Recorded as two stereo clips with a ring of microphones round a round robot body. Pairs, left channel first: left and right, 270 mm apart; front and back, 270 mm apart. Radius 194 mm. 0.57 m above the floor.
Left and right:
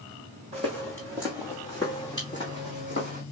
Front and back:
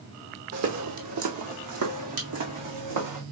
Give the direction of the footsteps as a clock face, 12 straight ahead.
5 o'clock.